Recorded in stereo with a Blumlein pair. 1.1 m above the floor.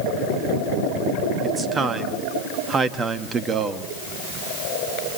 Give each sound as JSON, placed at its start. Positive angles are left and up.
{"t": 1.4, "sound": "a man speaking", "azimuth_deg": -20, "distance_m": 2.0}